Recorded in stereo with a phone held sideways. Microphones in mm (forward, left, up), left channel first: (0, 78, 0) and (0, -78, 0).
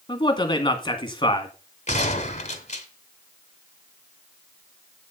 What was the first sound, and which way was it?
A man speaking, 30° left (ahead or behind).